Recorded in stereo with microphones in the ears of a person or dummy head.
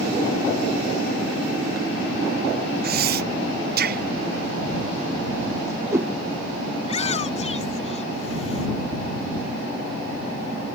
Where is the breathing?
50° right (ahead or behind).